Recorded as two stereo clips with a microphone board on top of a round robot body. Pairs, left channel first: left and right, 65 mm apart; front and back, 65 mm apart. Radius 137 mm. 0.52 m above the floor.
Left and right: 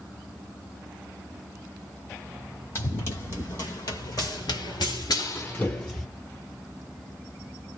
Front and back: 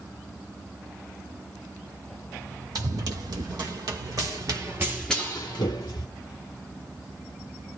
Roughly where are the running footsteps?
Behind left.